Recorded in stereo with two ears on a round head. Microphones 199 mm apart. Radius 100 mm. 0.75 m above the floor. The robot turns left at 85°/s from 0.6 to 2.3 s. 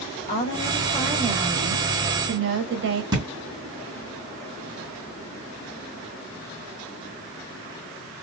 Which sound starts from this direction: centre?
A thud, at 3.1 s.